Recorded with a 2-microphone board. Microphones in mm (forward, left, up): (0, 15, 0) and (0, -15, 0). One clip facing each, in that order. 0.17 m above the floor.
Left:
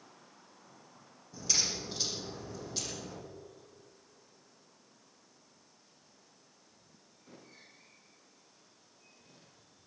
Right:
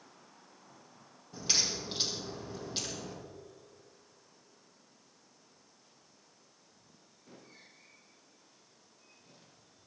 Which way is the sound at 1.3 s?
45° right (ahead or behind).